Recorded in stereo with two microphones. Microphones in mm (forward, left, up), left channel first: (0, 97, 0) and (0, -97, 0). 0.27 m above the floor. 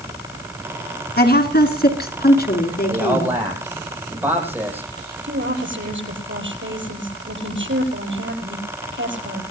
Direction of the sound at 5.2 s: 80° right.